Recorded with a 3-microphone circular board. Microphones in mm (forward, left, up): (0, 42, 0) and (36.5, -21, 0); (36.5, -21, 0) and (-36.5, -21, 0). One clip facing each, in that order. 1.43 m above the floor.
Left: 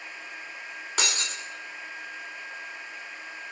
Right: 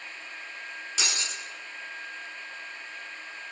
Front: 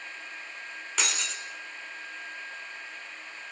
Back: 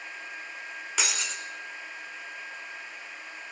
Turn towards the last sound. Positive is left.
turn(degrees=95)